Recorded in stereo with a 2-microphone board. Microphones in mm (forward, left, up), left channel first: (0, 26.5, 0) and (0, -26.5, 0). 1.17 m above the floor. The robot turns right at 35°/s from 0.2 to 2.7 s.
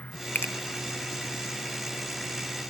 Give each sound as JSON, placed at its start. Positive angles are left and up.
{"t": 0.3, "sound": "a finger snap", "side_deg": 35, "distance_m": 0.5}